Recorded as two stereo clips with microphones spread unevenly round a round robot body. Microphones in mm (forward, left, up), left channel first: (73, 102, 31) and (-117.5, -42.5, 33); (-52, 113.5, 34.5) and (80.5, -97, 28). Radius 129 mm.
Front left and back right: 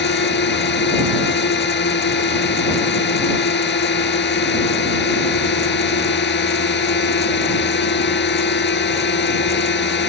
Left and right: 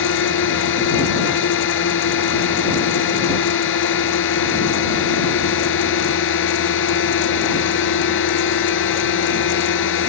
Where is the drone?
80° left.